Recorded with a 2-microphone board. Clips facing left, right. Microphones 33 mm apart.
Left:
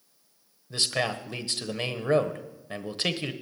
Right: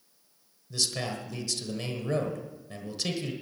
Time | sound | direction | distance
0.7 | a man speaking | 45° left (ahead or behind) | 1.2 m